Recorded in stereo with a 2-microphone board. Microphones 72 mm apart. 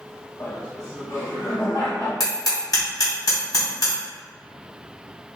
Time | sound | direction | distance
0.4 | laughter | 50° left (ahead or behind) | 1.5 m
2.2 | hammering | 65° left (ahead or behind) | 2.0 m